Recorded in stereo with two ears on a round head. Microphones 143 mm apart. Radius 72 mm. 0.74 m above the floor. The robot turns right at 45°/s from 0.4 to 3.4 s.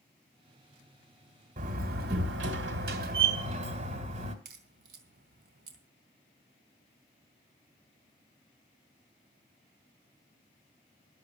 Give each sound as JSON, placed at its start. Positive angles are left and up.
{"t": 1.6, "sound": "a door slam", "azimuth_deg": -130, "distance_m": 2.0}
{"t": 4.5, "sound": "a crack", "side_deg": -70, "distance_m": 3.0}